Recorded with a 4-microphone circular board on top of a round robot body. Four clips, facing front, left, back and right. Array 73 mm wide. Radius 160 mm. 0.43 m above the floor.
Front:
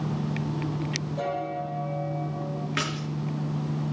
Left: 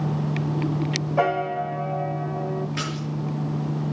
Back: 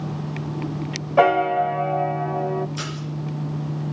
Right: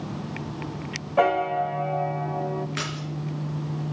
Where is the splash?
15° right, 4.5 m.